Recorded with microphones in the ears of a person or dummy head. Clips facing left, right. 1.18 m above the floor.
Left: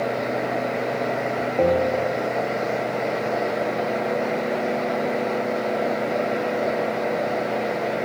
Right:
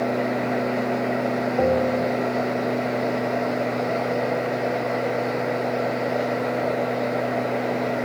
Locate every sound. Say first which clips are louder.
1.6 s a bell: left 2 dB; 15° right (ahead or behind), 0.9 m